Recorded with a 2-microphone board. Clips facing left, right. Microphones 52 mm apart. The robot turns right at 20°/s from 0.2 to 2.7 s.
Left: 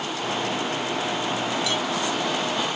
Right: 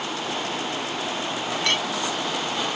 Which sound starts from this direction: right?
A clink, at 1.6 s.